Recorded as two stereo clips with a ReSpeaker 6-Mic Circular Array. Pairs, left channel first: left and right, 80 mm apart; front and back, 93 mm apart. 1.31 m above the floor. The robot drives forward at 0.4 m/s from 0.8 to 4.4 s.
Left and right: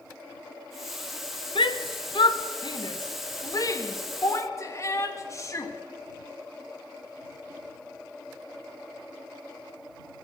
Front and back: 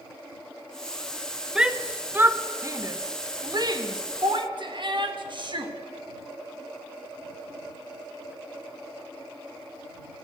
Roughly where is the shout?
Left.